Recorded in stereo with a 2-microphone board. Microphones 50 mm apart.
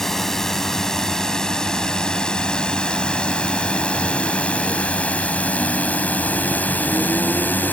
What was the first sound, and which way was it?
A drone, 5° left (ahead or behind).